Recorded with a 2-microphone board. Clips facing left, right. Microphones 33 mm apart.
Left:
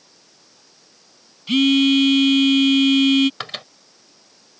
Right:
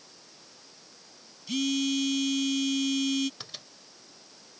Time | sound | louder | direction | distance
1.5 | a phone buzzing | left 13 dB | 50° left (ahead or behind) | ?
3.4 | a microwave | left 13 dB | 65° left (ahead or behind) | ?